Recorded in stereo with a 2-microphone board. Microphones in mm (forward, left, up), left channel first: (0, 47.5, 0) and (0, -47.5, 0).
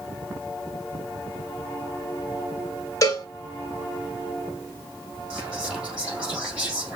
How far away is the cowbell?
About 1.7 m.